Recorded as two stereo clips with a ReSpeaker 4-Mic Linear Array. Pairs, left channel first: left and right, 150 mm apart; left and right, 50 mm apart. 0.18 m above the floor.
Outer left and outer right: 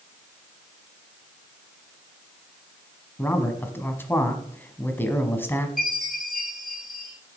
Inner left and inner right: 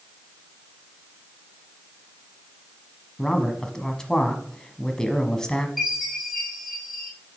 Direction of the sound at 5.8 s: Centre (ahead or behind).